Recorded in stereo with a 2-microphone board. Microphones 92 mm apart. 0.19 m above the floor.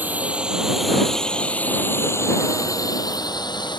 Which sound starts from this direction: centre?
A drone, at 0.0 s.